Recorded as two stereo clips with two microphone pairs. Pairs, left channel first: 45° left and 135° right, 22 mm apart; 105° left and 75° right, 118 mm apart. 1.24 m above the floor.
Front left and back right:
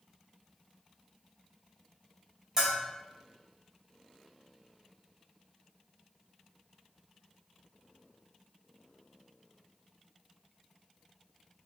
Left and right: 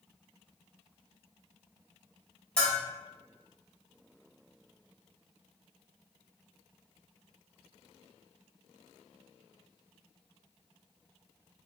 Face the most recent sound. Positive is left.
turn(degrees=180)